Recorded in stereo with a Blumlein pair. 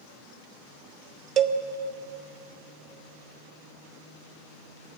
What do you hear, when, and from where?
1.4 s a cowbell: 30° right, 0.8 m